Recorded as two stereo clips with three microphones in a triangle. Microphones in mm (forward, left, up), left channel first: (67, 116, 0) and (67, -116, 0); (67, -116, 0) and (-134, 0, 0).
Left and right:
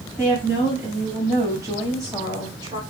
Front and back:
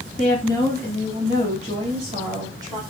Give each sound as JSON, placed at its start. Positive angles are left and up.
{"t": 0.2, "sound": "a woman speaking", "azimuth_deg": -165, "distance_m": 2.5}